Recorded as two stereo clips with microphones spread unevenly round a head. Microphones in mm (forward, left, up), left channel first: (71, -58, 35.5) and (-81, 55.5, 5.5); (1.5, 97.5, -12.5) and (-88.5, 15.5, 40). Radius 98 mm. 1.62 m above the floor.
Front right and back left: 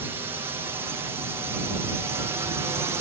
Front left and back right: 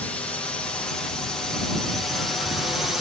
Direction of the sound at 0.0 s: 80° left.